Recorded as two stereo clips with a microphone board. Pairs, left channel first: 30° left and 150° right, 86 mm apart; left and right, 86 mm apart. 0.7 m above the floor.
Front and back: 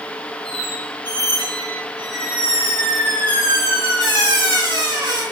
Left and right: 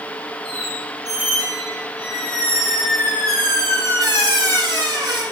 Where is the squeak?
135° right, 3.5 m.